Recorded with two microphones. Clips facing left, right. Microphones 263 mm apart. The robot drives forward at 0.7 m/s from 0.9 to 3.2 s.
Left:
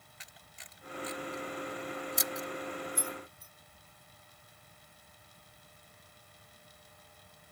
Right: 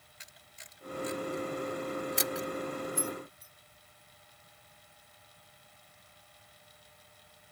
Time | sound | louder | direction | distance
0.2 | a camera shutter | right 1 dB | 50° right (ahead or behind) | ?
3.0 | keys jangling | right 4 dB | 5° right (ahead or behind) | ?